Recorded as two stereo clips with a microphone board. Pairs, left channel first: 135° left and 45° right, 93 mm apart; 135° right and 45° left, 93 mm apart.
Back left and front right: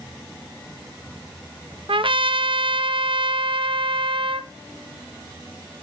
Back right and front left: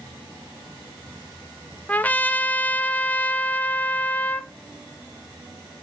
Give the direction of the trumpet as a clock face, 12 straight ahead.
2 o'clock.